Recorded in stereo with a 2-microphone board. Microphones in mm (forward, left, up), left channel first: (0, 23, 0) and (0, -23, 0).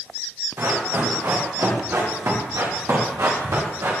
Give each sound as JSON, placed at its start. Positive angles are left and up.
{"t": 0.6, "sound": "running footsteps", "side_deg": -85, "distance_m": 8.0}